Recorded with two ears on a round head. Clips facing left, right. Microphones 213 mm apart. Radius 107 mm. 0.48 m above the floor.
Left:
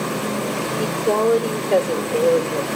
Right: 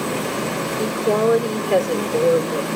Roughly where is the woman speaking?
Centre.